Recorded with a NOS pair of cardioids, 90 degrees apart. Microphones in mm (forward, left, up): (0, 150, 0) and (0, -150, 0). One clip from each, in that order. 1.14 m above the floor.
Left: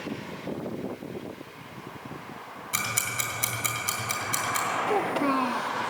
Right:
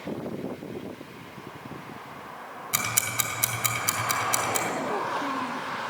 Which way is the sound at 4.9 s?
30° left.